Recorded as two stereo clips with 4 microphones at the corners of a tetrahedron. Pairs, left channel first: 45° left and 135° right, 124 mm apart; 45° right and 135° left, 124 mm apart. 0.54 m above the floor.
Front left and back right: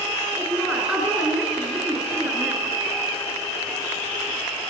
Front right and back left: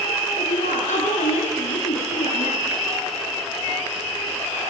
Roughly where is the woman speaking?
Ahead right.